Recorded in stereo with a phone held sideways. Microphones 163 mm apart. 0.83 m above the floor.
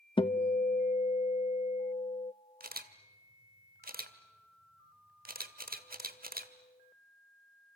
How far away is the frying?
I don't hear frying.